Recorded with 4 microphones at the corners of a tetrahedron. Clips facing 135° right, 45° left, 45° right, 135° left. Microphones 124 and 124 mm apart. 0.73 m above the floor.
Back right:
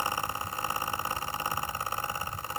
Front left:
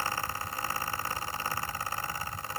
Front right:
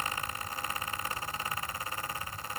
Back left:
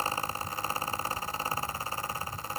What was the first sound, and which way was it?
Only background noise.